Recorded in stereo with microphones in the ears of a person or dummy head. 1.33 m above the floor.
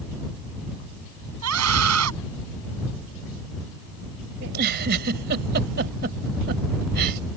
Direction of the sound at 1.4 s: 85° right.